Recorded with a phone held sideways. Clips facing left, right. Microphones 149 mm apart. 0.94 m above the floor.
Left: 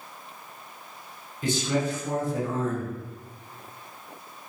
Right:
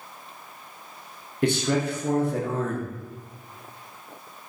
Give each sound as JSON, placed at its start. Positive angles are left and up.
{"t": 1.4, "sound": "a man speaking", "side_deg": -65, "distance_m": 0.7}